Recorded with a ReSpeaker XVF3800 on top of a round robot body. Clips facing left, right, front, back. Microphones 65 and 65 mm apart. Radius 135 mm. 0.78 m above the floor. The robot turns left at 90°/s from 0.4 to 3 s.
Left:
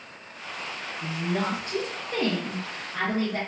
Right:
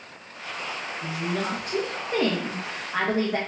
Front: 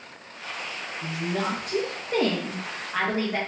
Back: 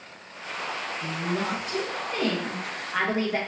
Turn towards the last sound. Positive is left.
turn(degrees=-95)